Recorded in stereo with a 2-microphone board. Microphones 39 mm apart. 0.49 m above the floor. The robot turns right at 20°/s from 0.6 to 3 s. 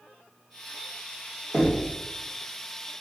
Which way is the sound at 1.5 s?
20° right (ahead or behind).